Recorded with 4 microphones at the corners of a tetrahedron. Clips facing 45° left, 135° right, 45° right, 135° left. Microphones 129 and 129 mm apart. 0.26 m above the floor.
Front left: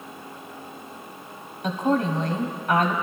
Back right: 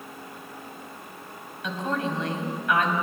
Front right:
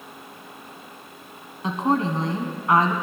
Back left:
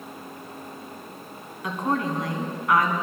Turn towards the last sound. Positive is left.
turn(degrees=10)